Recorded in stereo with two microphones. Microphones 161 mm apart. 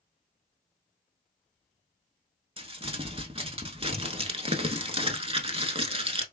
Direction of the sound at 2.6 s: 40° right (ahead or behind).